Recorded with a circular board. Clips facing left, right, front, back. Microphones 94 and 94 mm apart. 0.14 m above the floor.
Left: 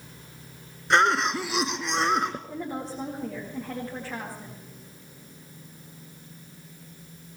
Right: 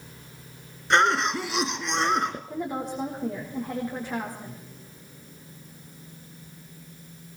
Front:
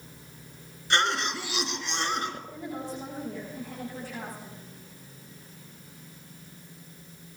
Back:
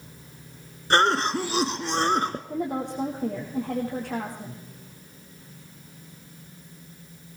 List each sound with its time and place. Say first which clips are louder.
0.9 s a cough: even, back 6 dB; straight behind, 1.4 m
2.5 s a woman speaking: right 3 dB, back 7 dB; 170° right, 6.5 m